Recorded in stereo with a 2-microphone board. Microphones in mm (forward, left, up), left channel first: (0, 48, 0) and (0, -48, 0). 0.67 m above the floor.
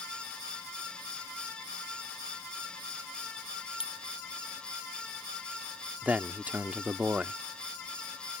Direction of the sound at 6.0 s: 15° right (ahead or behind).